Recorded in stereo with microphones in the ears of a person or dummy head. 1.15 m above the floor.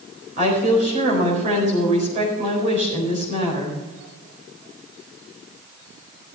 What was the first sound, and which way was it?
A woman speaking, 40° right (ahead or behind).